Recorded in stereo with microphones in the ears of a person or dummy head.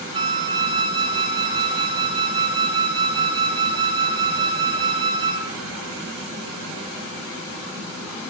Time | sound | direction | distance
0.1 | a flute | 20° right (ahead or behind) | 3.5 m